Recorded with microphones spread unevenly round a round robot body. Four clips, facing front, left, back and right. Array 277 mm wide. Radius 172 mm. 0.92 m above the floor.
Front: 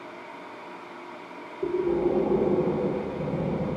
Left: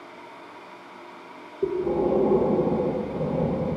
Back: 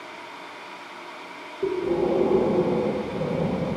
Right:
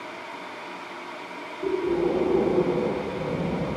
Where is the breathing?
105° left, 0.8 m.